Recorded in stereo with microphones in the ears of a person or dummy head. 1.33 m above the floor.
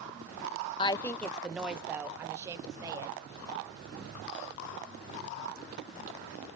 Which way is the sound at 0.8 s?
25° left (ahead or behind).